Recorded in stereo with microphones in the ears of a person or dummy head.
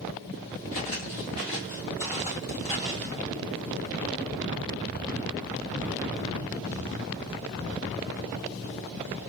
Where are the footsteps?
20° left (ahead or behind), 1.9 m; by 3.2 s centre (ahead or behind), 1.9 m.